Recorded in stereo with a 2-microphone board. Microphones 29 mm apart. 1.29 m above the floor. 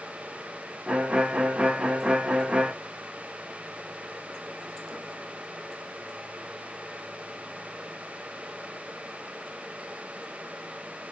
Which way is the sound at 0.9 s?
40° right (ahead or behind).